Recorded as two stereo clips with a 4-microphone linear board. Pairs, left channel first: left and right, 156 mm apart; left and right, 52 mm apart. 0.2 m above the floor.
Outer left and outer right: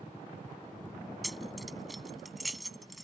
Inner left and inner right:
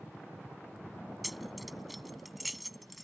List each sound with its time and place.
1.2 s keys jangling: centre (ahead or behind)